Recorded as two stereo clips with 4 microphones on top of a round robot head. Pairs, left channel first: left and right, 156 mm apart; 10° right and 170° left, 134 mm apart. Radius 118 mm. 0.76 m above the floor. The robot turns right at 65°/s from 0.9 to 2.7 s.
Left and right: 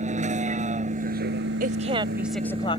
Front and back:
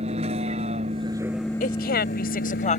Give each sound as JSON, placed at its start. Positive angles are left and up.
{"t": 0.0, "sound": "a vehicle", "azimuth_deg": -135}
{"t": 1.6, "sound": "a woman speaking", "azimuth_deg": -50}